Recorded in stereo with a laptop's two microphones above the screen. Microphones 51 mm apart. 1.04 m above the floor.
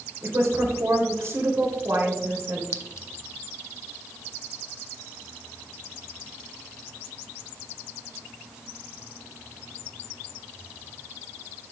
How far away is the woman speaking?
About 3.5 m.